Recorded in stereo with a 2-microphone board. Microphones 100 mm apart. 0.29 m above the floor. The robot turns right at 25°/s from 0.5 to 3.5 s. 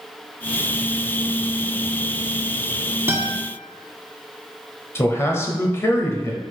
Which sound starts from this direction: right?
A guitar, at 3.1 s.